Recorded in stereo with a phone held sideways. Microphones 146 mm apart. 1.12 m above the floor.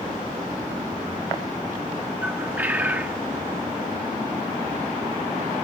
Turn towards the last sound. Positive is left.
turn(degrees=-10)  # may be behind; listen again after turning